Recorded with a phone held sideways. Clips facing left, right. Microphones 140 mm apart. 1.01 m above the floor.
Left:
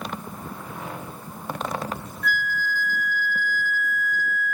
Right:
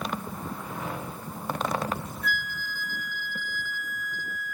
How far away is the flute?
About 0.5 m.